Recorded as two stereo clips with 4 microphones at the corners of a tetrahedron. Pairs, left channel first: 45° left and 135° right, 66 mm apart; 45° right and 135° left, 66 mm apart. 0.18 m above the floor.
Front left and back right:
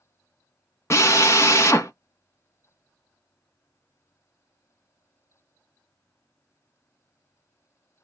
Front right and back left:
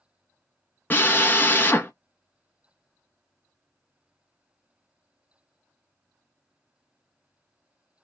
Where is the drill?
10° left, 0.8 m.